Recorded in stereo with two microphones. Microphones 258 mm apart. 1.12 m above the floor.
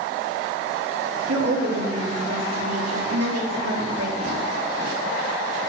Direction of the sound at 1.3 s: 70° right (ahead or behind).